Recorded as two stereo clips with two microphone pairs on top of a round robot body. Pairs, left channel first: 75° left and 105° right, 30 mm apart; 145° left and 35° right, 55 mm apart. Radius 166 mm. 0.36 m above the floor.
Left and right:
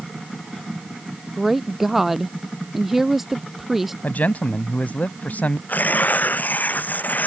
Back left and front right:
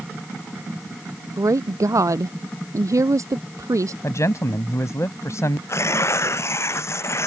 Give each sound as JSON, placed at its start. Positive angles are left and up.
{"t": 1.4, "sound": "a woman speaking", "azimuth_deg": -20}
{"t": 4.0, "sound": "a man speaking", "azimuth_deg": 110}
{"t": 5.7, "sound": "tearing paper", "azimuth_deg": 105}